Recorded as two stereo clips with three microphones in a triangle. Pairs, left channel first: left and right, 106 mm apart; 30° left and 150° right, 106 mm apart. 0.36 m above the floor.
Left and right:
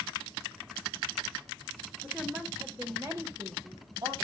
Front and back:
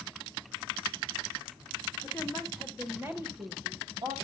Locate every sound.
2.0 s a woman speaking: 20° right, 1.4 m; by 4.2 s 130° right, 2 m